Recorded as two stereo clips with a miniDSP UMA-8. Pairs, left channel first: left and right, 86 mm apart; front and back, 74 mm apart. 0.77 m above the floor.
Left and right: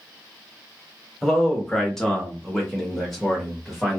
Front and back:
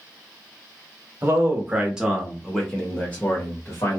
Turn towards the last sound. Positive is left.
turn(degrees=0)